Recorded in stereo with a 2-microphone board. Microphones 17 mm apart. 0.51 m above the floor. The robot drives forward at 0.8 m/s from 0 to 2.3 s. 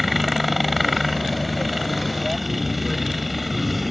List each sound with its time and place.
0.0 s a helicopter: centre (ahead or behind)